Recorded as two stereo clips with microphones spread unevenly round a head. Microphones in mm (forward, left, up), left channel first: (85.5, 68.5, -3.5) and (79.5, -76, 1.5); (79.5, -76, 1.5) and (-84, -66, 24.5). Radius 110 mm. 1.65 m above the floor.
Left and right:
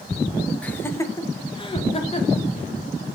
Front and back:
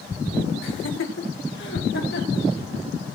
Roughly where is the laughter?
Ahead.